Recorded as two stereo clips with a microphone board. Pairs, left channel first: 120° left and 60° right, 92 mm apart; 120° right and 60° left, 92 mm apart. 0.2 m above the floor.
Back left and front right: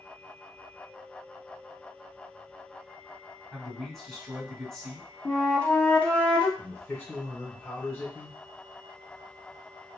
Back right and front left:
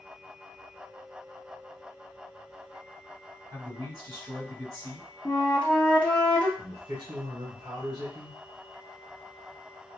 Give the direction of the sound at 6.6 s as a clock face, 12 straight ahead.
10 o'clock.